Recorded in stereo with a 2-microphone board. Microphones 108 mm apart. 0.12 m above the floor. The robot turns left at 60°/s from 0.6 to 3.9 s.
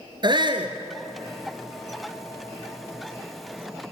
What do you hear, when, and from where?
0.2 s a shout: 45° right (ahead or behind), 1.6 m